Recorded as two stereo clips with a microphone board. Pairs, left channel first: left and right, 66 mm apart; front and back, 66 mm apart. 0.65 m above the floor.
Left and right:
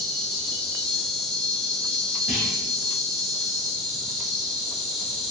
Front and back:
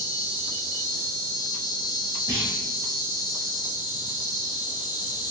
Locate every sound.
0.0 s an insect: 5° left, 1.0 m
2.3 s a clunk: straight behind, 1.5 m